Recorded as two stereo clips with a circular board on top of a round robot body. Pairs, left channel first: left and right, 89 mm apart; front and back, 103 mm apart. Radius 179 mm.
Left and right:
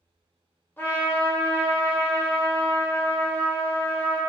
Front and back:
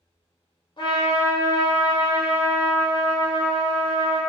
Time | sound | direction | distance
0.8 | a trumpet | 25° left | 1.0 m